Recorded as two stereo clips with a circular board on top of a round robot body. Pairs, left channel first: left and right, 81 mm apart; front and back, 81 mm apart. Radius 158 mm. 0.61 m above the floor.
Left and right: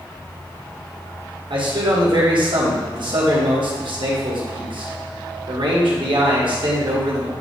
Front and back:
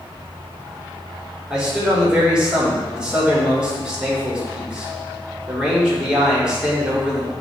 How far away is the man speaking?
About 2 m.